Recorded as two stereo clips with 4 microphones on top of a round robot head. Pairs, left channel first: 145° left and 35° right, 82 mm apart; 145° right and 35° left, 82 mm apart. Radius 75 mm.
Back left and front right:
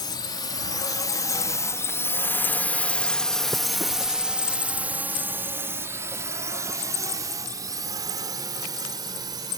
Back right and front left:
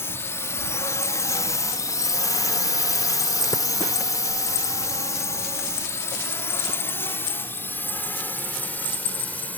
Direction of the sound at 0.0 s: 160° left.